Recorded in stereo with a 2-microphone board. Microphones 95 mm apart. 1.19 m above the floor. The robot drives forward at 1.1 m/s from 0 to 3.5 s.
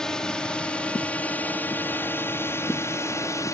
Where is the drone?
5° left (ahead or behind); by 3.5 s 35° left (ahead or behind).